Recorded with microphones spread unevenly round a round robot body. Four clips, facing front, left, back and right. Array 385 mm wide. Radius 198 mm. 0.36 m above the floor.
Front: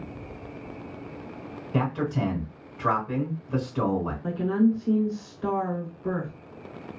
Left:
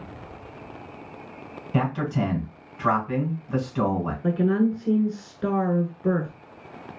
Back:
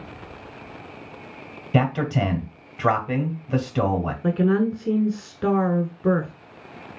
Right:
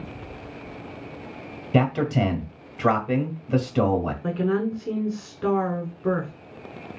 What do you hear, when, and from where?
1.7 s a man speaking: 130° right, 1.7 m
4.2 s a woman speaking: 170° right, 1.1 m